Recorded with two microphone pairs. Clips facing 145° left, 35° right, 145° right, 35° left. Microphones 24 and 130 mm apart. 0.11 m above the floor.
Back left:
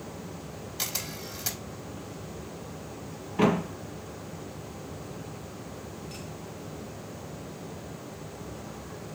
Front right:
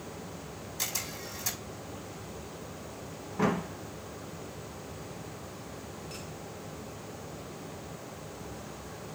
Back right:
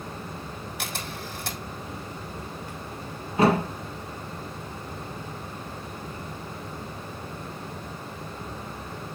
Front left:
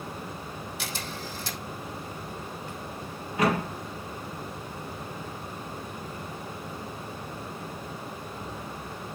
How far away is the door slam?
About 2.0 m.